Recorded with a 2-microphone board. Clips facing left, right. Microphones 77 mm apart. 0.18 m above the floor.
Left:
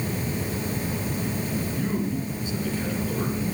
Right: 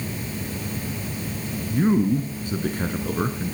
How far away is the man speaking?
About 1.9 m.